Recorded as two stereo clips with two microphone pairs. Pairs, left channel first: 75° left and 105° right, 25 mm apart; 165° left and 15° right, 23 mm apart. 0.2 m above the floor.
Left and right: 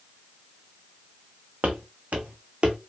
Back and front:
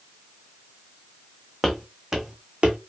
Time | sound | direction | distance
1.6 | footsteps | 110° right | 0.7 m